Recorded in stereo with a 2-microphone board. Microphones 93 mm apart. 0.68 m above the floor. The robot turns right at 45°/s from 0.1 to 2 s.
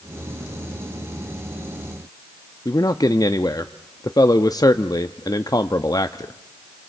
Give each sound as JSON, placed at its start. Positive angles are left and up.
{"t": 2.6, "sound": "a man speaking", "side_deg": 40, "distance_m": 0.6}